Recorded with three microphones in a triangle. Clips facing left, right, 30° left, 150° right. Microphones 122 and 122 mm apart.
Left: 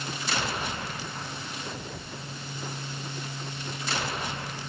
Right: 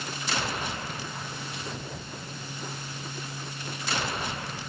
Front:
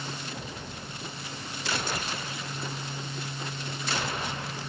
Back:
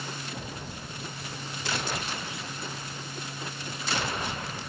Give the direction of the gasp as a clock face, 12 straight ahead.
I don't hear a gasp.